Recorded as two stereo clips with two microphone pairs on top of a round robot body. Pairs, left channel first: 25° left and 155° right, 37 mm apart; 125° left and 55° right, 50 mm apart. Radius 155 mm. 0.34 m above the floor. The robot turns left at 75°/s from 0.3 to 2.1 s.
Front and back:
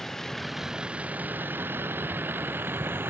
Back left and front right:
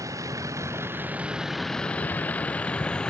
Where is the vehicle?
60° right; by 3.1 s 160° right.